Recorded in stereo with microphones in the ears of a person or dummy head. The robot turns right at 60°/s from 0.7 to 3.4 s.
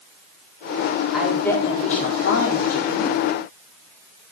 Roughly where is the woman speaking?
Ahead.